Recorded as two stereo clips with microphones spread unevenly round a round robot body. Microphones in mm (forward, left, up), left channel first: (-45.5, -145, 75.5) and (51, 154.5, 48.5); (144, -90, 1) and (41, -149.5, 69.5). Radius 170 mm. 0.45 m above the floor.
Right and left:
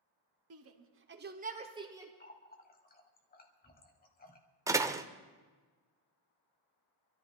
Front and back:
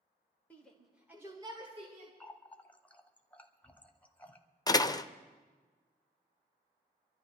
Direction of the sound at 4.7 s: 5° right.